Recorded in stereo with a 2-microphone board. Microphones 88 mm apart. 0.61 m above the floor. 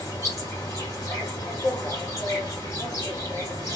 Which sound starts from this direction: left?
An insect, at 0.0 s.